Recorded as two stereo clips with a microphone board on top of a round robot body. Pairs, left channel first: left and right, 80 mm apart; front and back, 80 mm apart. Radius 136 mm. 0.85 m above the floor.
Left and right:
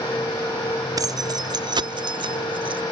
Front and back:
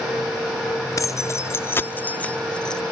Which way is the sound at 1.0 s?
50° right.